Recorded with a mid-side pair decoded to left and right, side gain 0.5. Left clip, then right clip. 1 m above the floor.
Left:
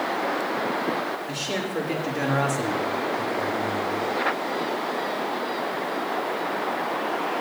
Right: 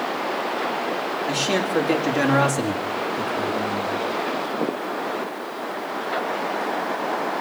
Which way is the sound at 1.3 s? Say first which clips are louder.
Right 6 dB; 65° right.